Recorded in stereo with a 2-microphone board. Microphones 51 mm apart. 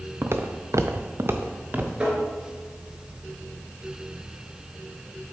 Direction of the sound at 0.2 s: 50° right (ahead or behind).